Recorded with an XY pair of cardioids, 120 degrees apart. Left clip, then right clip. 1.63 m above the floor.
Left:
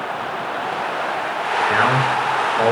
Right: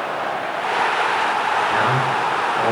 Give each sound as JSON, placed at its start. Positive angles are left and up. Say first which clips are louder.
{"t": 1.7, "sound": "a man speaking", "louder": "left 1 dB", "azimuth_deg": 45, "distance_m": 0.7}